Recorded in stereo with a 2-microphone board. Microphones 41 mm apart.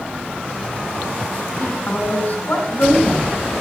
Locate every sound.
1.6 s a woman speaking: 45° left (ahead or behind), 3 m